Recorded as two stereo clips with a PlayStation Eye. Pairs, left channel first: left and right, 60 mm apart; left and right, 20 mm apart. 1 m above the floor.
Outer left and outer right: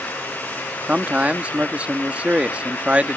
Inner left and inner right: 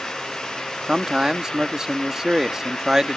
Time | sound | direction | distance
0.9 | a man speaking | 20° right (ahead or behind) | ?